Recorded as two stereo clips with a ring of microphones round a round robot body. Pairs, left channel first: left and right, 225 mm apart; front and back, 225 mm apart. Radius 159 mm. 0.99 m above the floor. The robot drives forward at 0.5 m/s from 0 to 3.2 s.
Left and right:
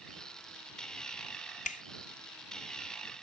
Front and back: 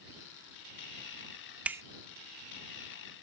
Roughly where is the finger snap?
Left.